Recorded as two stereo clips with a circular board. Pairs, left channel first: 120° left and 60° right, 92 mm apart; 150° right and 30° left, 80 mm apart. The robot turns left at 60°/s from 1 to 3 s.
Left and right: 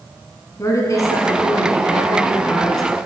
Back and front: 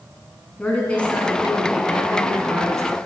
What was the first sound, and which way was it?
A woman speaking, 145° left.